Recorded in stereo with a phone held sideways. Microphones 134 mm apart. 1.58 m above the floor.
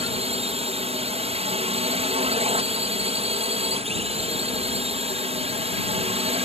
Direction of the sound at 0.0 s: 50° right (ahead or behind).